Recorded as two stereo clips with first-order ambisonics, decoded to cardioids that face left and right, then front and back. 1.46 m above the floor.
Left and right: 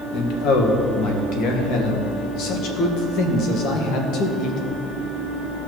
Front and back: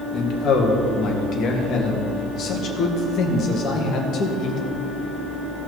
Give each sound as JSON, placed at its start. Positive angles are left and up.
{"t": 0.1, "sound": "a man speaking", "azimuth_deg": 50, "distance_m": 1.8}